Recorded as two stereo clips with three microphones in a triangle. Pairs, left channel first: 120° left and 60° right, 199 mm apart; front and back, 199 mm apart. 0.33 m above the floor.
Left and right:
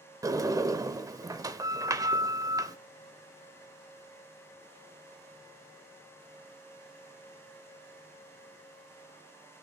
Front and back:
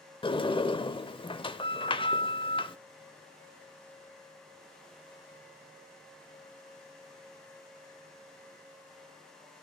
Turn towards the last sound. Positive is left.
turn(degrees=-10)